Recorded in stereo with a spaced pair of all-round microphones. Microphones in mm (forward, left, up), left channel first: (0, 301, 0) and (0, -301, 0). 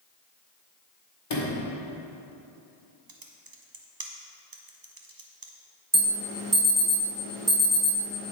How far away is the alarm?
About 2.5 m.